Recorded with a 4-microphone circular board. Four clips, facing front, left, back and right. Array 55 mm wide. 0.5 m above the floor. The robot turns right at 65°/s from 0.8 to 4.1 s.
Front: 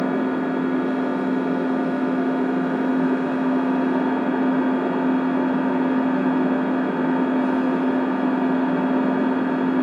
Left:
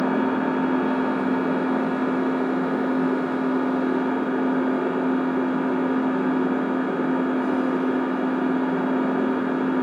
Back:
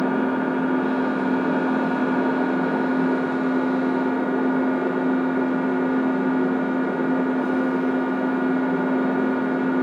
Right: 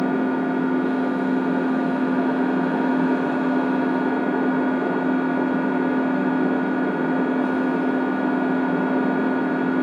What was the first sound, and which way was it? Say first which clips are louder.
An engine running: even, even; 110° left.